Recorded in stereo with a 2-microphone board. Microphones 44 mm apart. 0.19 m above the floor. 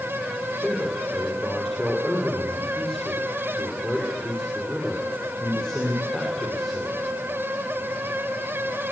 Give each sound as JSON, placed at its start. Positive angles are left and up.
{"t": 0.6, "sound": "a man speaking", "side_deg": 15, "distance_m": 6.0}